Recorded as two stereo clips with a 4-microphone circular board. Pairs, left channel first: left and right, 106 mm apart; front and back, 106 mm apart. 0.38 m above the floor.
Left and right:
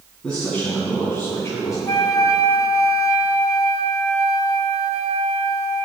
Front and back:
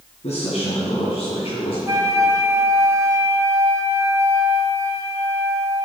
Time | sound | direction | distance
0.2 | a man speaking | 5° left | 3 m
1.9 | a flute | 130° left | 1.2 m